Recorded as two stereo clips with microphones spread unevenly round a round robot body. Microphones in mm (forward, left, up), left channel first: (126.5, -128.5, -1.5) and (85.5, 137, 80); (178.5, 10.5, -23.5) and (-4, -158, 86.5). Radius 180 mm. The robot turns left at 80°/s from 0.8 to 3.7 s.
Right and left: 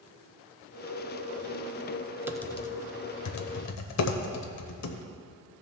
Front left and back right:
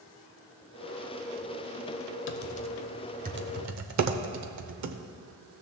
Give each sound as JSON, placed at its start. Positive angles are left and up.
{"t": 2.3, "sound": "typing on a keyboard", "azimuth_deg": 10, "distance_m": 0.8}